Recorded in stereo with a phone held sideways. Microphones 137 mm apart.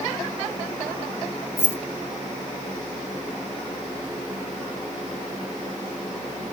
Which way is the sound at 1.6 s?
15° left (ahead or behind).